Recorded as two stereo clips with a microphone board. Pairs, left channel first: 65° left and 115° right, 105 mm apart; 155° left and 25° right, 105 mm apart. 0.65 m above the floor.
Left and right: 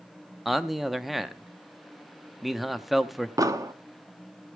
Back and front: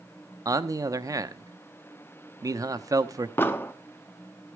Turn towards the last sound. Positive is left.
turn(degrees=-145)